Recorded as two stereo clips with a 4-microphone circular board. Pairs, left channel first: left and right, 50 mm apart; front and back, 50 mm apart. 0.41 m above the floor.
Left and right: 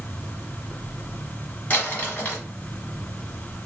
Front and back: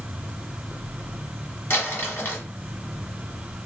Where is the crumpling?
35° left, 1.6 m.